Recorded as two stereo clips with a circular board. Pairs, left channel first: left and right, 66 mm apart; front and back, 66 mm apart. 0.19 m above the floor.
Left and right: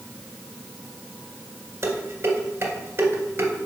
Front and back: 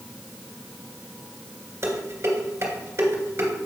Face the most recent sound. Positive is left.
turn(degrees=-135)